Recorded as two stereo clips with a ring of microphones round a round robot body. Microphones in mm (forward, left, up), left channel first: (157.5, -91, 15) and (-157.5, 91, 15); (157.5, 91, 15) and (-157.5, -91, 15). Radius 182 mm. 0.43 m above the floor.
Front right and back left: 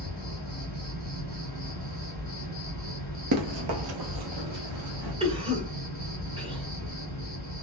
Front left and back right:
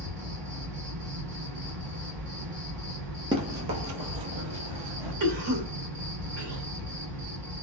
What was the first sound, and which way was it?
An insect, 155° right.